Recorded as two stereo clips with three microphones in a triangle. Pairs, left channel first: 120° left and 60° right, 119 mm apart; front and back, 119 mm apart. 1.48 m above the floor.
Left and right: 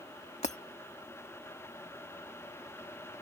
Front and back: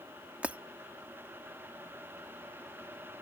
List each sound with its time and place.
0.4 s breaking glass: 100° left